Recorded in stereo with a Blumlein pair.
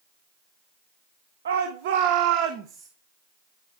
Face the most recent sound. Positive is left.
turn(degrees=-30)